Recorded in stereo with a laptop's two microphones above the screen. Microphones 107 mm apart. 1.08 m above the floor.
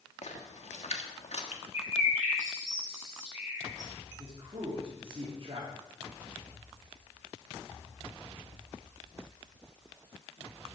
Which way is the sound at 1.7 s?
25° right (ahead or behind).